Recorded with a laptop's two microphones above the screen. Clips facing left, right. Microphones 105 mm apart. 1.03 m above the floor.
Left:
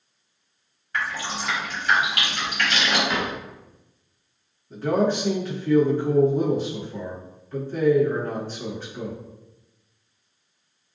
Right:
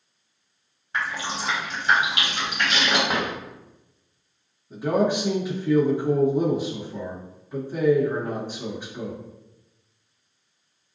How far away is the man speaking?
About 1.2 m.